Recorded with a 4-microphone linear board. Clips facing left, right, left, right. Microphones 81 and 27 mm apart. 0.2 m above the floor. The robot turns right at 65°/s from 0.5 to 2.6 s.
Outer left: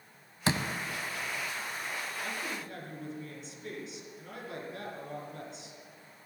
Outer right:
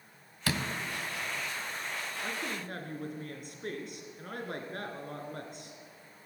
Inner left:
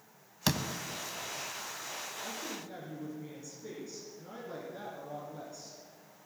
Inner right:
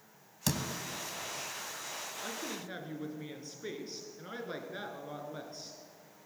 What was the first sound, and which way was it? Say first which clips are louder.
A door slam: outer left 3 dB, inner left 3 dB; 25° left (ahead or behind).